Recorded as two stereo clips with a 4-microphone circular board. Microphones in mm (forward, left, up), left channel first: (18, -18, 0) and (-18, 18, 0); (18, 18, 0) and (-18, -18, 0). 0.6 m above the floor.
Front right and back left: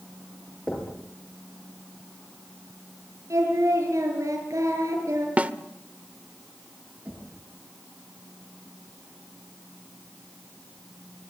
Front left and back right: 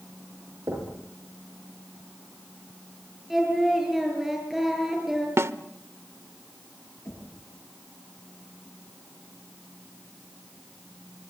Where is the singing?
140° left, 8 m.